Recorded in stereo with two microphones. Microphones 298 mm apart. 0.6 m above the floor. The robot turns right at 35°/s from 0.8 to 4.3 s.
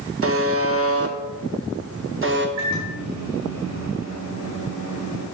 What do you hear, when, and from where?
0.2 s a buzzer: 50° right (ahead or behind), 0.7 m; by 2.5 s 40° right (ahead or behind), 0.7 m
2.6 s a microwave: 115° right, 2 m; by 5.2 s 55° right, 2 m